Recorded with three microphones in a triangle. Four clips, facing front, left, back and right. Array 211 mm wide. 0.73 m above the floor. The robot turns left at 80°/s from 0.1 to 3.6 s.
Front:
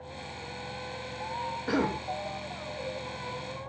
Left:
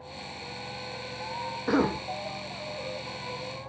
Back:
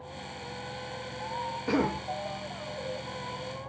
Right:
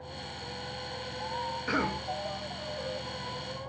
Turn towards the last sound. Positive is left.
turn(degrees=-50)